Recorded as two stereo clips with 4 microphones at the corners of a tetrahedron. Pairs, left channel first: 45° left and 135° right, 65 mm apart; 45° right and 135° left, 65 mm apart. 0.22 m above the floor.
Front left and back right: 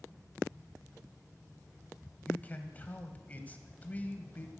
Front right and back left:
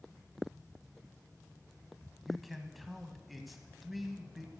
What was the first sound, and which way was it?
A man speaking, 45° left.